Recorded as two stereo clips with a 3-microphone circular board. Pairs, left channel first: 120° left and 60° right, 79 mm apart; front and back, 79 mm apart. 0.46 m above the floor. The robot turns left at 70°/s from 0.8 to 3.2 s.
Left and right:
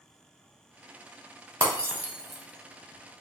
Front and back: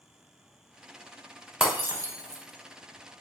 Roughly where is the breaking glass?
Right.